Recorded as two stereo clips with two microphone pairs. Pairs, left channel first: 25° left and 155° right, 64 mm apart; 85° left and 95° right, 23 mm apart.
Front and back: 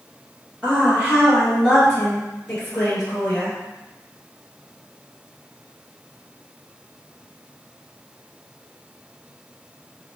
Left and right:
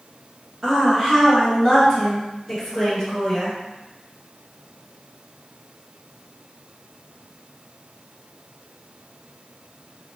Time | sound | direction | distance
0.6 | a woman speaking | 120° right | 1.8 m